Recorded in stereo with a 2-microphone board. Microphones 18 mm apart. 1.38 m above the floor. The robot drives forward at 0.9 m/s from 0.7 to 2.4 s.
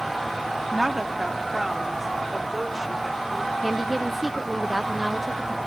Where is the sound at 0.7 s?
15° right (ahead or behind); by 3.5 s 10° right (ahead or behind).